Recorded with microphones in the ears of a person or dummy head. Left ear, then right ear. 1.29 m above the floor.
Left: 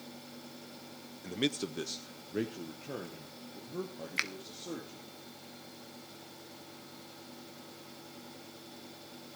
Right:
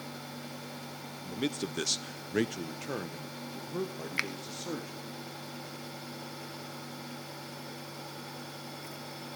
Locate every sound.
1.2 s a man speaking: 25° left (ahead or behind), 0.6 m; by 5.2 s 70° right (ahead or behind), 3 m
4.2 s a finger snap: centre (ahead or behind), 0.6 m